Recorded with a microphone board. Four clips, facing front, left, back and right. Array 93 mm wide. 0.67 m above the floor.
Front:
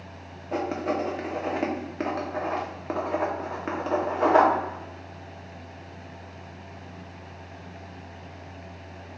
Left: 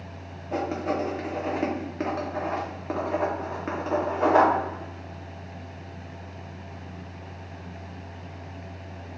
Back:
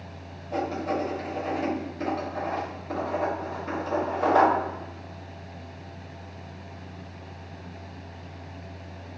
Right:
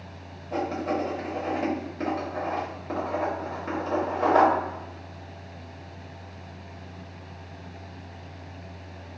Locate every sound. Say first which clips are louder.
0.5 s writing: even, front 1 dB; 25° left, 0.8 m